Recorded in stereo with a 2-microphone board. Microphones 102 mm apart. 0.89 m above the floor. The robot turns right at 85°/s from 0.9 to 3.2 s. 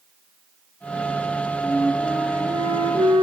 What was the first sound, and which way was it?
A flute, 145° left.